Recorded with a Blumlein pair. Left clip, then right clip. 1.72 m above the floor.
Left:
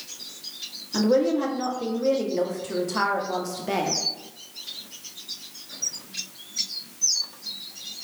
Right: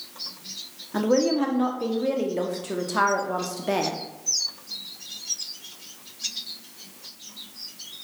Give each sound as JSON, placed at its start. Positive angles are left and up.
{"t": 0.9, "sound": "a woman speaking", "azimuth_deg": -10, "distance_m": 0.5}